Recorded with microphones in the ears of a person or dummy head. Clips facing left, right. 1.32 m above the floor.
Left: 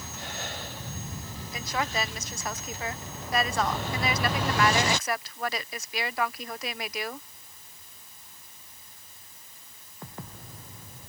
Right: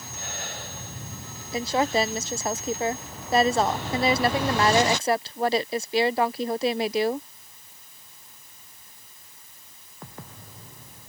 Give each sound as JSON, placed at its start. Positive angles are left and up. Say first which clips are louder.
{"t": 1.5, "sound": "a woman speaking", "louder": "right 8 dB", "side_deg": -25}